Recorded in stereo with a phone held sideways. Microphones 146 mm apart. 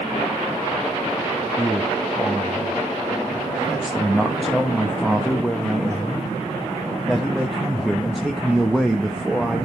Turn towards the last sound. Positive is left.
turn(degrees=0)  # may be behind; listen again after turning